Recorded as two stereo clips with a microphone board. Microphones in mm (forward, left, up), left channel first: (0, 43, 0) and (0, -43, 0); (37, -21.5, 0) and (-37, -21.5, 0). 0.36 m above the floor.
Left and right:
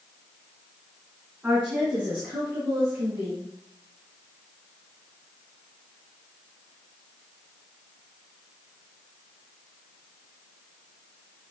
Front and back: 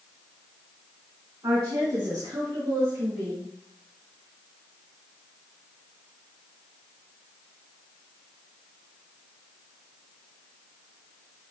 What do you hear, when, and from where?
1.4 s a woman speaking: 160° right, 4 m; by 3.5 s 145° right, 5.5 m